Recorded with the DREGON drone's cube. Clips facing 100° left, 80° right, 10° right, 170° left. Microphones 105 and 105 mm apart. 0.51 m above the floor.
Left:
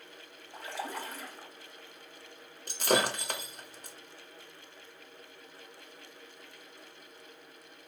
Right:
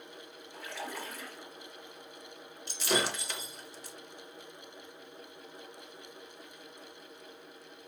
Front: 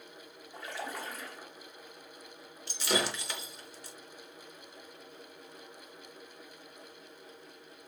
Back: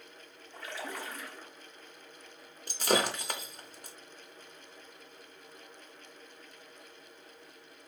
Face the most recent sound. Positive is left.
turn(degrees=135)